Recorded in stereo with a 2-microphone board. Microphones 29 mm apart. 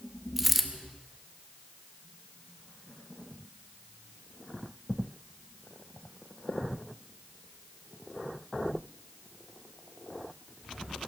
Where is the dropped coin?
5° right (ahead or behind), 0.9 m.